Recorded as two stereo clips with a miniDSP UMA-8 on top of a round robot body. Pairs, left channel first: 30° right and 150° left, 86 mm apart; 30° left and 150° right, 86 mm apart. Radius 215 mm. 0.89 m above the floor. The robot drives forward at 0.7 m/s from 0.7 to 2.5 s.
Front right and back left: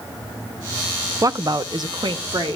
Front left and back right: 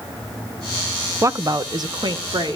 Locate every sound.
1.2 s a woman speaking: 170° left, 0.6 m; by 2.6 s straight behind, 1.3 m